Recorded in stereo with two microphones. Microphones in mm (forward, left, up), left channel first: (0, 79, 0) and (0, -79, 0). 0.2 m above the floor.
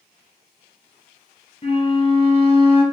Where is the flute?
40° left (ahead or behind), 0.8 m.